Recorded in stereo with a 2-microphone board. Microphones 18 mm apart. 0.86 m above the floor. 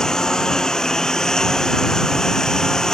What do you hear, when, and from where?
0.0 s a lawn mower: 35° left (ahead or behind)